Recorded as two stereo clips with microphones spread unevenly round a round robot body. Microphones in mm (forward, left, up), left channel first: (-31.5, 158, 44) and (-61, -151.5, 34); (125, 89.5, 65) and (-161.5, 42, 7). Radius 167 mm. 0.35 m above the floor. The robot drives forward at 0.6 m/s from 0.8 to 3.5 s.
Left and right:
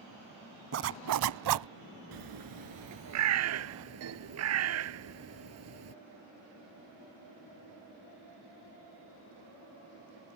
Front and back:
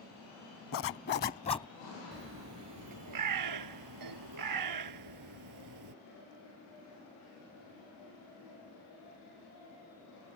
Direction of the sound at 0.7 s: 45° right.